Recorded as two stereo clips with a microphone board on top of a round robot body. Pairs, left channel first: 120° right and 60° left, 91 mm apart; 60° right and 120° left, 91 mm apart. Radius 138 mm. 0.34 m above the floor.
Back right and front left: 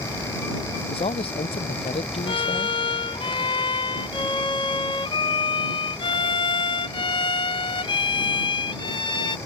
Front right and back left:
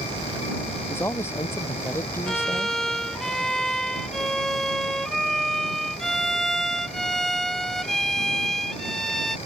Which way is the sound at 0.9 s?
125° right.